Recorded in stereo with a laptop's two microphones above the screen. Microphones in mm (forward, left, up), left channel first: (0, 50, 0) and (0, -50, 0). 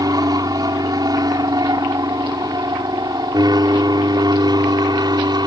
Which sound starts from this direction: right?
An aircraft, at 0.0 s.